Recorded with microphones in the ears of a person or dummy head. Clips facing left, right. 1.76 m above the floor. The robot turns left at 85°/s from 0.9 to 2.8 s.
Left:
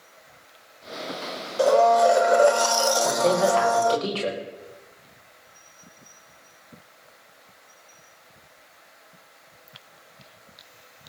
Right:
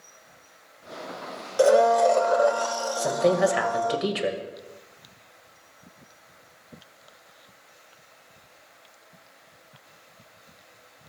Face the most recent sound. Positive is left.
turn(degrees=-15)  # may be behind; listen again after turning